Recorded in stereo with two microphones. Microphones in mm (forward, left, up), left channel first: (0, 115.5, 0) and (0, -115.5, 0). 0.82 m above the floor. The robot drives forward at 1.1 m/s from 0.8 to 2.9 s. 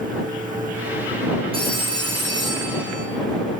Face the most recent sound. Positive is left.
turn(degrees=-15)  # may be behind; listen again after turning